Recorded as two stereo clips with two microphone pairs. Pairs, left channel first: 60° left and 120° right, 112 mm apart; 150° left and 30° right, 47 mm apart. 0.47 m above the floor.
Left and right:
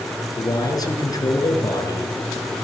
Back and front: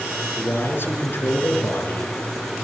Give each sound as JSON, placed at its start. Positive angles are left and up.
{"t": 0.4, "sound": "a man speaking", "azimuth_deg": 115, "distance_m": 5.5}